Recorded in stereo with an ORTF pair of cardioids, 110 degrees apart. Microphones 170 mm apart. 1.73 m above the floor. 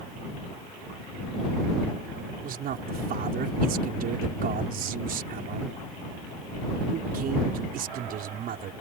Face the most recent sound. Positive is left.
turn(degrees=-60)